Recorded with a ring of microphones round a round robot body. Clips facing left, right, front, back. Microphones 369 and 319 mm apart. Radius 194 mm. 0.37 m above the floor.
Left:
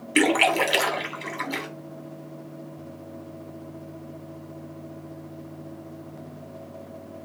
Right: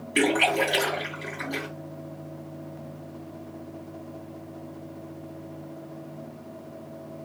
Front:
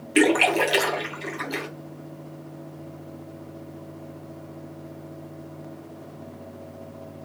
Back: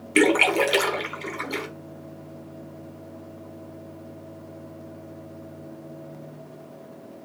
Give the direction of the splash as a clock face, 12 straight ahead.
8 o'clock.